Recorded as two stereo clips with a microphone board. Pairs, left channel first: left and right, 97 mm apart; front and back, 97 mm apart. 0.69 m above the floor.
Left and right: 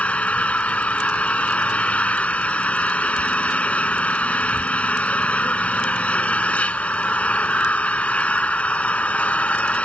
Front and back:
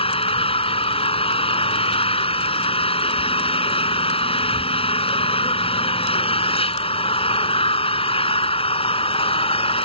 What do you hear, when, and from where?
0.0 s an engine running: 15° left